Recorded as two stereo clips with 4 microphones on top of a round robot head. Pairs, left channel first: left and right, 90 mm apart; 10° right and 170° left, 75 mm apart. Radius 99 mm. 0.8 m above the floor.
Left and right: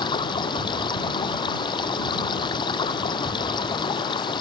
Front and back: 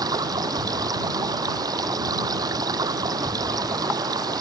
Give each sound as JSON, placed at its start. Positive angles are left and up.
{"t": 0.0, "sound": "running water", "azimuth_deg": 130}